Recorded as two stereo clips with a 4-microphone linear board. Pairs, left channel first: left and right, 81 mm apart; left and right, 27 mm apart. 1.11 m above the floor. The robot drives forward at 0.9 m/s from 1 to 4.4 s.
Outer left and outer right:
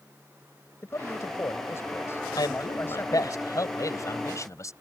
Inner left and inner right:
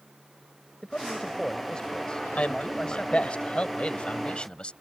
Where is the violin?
No violin in this recording.